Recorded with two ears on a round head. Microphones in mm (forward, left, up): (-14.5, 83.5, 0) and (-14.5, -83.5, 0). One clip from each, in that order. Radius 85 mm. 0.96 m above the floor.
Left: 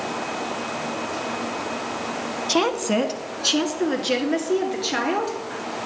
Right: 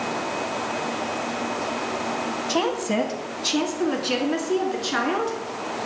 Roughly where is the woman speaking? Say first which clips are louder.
Left 4 dB; left.